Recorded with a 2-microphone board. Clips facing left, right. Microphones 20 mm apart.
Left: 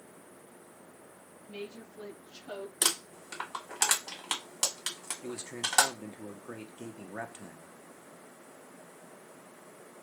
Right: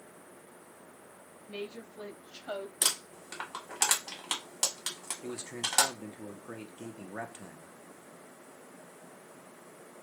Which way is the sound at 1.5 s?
70° right (ahead or behind).